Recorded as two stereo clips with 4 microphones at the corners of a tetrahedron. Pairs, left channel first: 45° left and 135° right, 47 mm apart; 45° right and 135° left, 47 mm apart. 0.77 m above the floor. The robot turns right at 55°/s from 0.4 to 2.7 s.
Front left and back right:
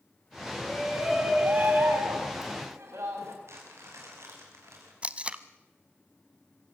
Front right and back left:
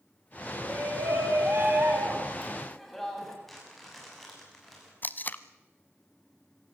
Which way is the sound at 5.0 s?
80° right.